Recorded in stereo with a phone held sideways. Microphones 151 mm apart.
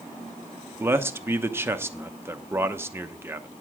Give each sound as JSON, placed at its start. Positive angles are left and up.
{"t": 0.8, "sound": "a man speaking", "side_deg": -15, "distance_m": 0.9}